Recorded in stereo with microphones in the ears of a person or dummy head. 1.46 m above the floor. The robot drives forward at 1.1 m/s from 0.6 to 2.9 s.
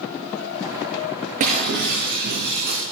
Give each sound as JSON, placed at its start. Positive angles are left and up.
{"t": 1.4, "sound": "breaking glass", "side_deg": -40, "distance_m": 4.5}